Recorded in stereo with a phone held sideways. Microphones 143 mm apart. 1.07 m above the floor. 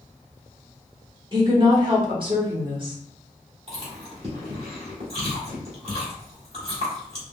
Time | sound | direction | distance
1.3 | a woman speaking | 35° right (ahead or behind) | 1.2 m
3.7 | chewing | 40° right (ahead or behind) | 1.9 m